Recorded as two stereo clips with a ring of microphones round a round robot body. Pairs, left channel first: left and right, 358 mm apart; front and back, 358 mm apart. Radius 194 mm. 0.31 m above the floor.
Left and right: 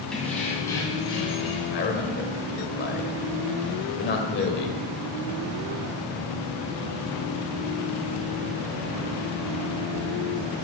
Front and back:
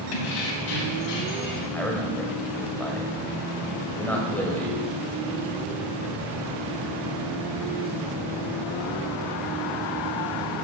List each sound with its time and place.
0.1 s keys jangling: straight ahead, 1.7 m; by 1.6 s 15° left, 2.5 m
1.7 s a man speaking: 80° left, 1.2 m